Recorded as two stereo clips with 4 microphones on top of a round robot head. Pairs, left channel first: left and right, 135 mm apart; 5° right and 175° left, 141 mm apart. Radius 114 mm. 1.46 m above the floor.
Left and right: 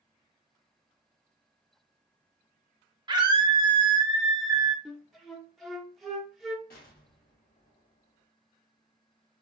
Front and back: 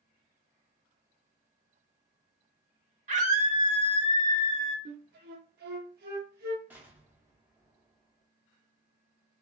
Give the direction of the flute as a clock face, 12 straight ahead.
6 o'clock.